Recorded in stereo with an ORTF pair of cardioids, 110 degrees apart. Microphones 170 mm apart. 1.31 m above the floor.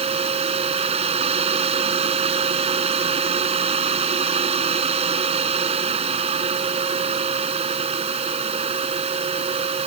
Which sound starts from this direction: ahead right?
A fan, at 0.0 s.